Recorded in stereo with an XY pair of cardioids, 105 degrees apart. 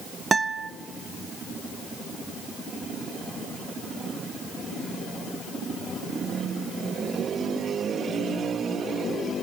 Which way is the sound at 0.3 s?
30° right.